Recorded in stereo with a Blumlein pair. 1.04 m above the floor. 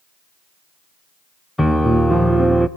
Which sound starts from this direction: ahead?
A piano, at 1.6 s.